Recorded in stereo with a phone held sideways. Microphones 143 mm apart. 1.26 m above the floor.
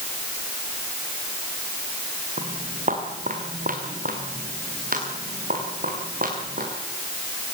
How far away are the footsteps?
About 4.5 m.